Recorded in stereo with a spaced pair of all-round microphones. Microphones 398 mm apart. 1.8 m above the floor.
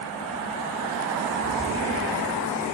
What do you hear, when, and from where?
1.4 s a cat meowing: 40° left (ahead or behind), 4.5 m